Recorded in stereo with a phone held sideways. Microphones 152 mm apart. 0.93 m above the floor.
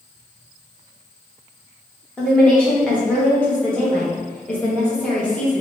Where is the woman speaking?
5° left (ahead or behind), 1.1 m.